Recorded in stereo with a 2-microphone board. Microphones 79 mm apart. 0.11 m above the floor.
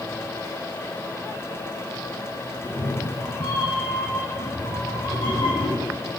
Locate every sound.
2.6 s a cat meowing: 60° left (ahead or behind), 1.3 m; by 6.2 s 80° left, 3.5 m